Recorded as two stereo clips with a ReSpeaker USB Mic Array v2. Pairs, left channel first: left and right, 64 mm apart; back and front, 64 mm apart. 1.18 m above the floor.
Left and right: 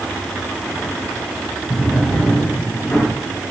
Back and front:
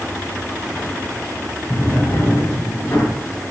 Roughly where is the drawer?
Behind left.